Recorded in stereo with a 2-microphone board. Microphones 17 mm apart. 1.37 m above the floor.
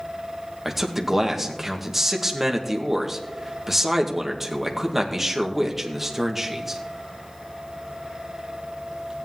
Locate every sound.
0.7 s a man speaking: 15° right (ahead or behind), 1.8 m